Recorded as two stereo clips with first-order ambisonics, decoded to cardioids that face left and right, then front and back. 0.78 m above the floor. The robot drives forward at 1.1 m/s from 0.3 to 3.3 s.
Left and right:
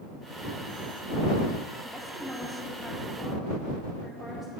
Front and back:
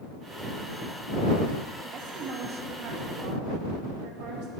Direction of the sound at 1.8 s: 170° right.